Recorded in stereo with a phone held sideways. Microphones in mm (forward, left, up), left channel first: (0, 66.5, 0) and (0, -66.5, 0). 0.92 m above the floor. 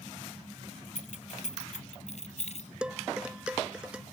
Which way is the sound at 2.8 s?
5° right (ahead or behind).